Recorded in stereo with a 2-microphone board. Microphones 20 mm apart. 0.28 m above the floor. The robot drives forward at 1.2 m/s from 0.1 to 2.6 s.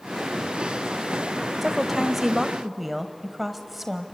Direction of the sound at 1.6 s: 10° right (ahead or behind).